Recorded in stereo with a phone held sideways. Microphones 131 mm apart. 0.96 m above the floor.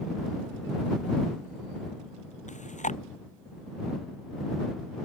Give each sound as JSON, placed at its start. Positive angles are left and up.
{"t": 2.5, "sound": "chewing", "side_deg": 65}